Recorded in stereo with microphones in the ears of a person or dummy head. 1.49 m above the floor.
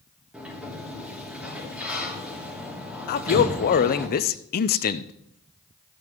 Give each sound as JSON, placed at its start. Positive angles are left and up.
{"t": 0.3, "sound": "a sliding door", "side_deg": -5, "distance_m": 2.0}
{"t": 3.1, "sound": "a man speaking", "side_deg": 50, "distance_m": 0.7}